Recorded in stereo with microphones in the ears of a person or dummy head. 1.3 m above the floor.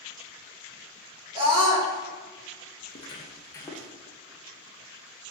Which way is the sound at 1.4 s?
30° right (ahead or behind).